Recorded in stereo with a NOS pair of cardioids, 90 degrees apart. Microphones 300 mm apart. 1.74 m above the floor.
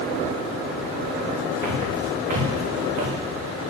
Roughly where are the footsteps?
Ahead right.